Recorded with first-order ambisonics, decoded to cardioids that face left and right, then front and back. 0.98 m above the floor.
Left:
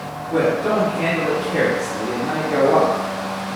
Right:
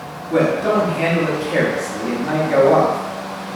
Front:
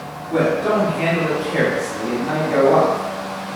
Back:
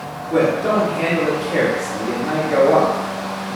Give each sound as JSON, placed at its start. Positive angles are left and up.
{"t": 0.3, "sound": "a man speaking", "azimuth_deg": -95, "distance_m": 0.9}